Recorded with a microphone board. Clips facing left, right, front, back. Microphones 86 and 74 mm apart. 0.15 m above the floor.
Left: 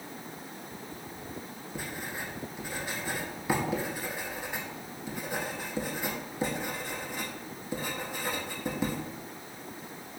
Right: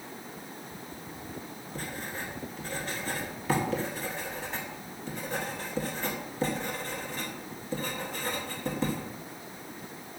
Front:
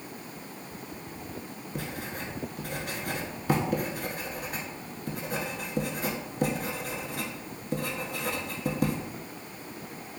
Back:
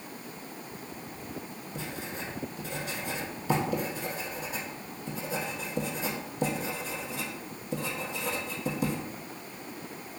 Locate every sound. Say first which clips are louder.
1.8 s writing: even, front 2 dB; 10° left, 0.8 m